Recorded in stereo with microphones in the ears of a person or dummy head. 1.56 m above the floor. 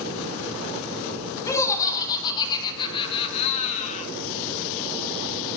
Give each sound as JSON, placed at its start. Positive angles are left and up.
{"t": 1.5, "sound": "laughter", "side_deg": 20, "distance_m": 5.5}